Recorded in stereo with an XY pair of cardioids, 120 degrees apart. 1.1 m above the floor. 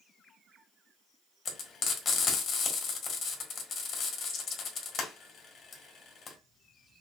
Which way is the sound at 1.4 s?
55° left.